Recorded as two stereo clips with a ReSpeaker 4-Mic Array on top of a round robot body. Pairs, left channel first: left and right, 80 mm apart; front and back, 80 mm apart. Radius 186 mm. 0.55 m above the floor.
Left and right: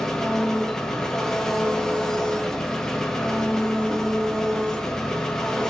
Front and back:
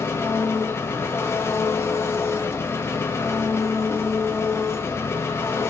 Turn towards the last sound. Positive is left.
turn(degrees=15)